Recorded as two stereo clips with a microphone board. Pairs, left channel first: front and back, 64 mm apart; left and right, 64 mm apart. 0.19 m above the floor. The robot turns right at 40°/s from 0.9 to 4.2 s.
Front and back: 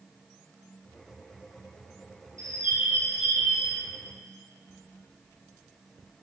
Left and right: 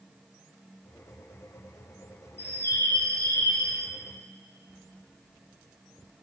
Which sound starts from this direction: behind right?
A bird, at 2.4 s.